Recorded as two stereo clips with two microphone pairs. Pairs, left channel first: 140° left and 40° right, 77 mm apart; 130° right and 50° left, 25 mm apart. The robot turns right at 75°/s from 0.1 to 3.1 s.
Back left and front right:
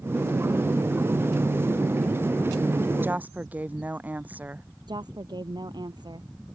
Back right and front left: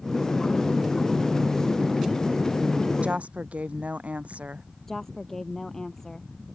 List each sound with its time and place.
3.0 s a woman speaking: 20° left; by 4.7 s 30° left
4.9 s a woman speaking: 60° right